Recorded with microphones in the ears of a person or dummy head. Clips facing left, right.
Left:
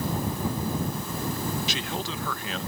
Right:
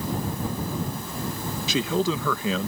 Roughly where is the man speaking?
Right.